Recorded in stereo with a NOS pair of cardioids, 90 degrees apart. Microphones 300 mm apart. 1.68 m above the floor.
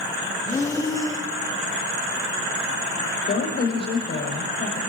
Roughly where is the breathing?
Ahead.